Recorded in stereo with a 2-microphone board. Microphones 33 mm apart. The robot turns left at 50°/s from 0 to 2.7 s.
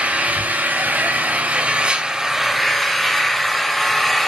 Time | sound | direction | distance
0.0 | an engine running | 45° right | 1.6 m